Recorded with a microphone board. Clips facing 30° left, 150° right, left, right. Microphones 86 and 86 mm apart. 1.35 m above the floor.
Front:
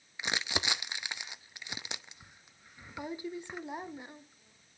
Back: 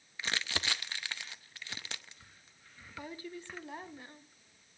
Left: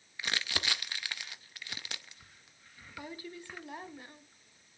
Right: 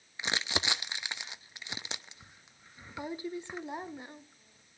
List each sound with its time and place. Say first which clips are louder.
0.2 s crumpling: front 2 dB, right 3 dB; 35° right, 0.7 m